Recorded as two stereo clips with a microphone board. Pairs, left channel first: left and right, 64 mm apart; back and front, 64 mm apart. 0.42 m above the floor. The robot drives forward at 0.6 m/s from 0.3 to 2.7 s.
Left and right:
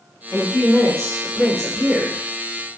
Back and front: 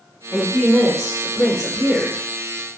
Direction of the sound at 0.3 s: 165° left.